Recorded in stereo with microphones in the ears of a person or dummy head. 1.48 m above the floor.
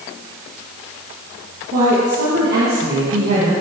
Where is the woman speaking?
50° right (ahead or behind), 2 m.